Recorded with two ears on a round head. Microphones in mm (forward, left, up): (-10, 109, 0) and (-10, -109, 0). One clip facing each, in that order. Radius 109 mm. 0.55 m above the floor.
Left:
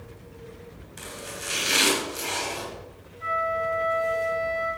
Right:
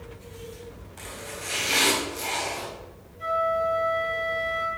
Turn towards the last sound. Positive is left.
turn(degrees=-50)  # may be behind; listen again after turning